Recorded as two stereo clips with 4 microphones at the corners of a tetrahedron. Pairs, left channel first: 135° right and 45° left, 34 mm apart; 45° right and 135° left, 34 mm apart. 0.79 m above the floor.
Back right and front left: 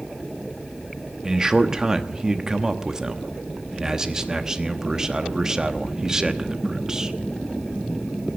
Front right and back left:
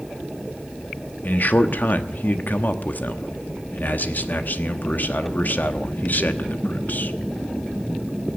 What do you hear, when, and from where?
1.2 s a man speaking: 25° right, 1.1 m